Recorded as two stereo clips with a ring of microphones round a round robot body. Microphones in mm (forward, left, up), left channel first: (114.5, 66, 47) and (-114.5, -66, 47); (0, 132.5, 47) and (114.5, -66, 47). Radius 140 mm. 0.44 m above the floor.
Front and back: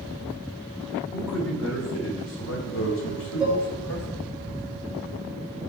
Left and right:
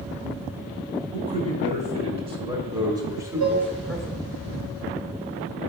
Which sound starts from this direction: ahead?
A man speaking, at 1.1 s.